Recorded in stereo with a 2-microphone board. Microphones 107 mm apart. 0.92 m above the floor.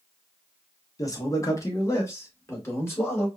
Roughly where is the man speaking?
Left.